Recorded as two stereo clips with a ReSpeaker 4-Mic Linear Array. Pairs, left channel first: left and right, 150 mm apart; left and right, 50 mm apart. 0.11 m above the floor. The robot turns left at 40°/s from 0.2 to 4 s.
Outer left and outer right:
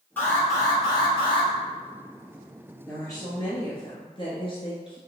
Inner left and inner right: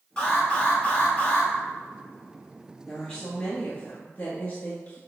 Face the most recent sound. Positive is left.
turn(degrees=110)